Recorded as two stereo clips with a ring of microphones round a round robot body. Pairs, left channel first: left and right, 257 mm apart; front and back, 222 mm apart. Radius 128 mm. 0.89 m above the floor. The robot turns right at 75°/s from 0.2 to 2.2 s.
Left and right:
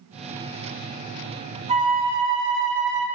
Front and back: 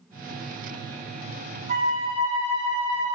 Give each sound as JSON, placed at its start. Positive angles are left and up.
{"t": 1.7, "sound": "a flute", "azimuth_deg": -150, "distance_m": 0.9}